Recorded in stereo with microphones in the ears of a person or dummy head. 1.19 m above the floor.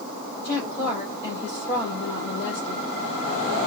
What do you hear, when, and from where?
0.4 s a woman speaking: 60° left (ahead or behind), 2 m